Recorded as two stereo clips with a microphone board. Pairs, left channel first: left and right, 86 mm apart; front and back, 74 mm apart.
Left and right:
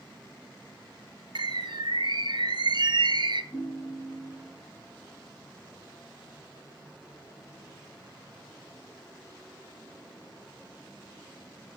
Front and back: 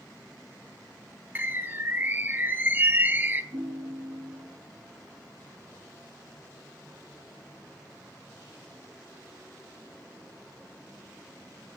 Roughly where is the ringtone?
Behind left.